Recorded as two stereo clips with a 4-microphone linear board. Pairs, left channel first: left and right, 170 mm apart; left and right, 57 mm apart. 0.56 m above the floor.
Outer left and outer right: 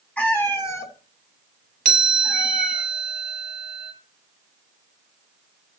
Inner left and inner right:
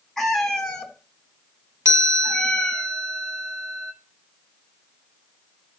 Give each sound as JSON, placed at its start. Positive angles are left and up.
{"t": 0.2, "sound": "a cat meowing", "side_deg": 10, "distance_m": 1.4}
{"t": 1.9, "sound": "a chime", "side_deg": -70, "distance_m": 1.5}